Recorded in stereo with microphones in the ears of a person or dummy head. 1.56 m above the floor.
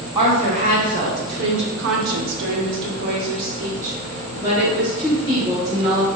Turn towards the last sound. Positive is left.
turn(degrees=-25)  # may be behind; listen again after turning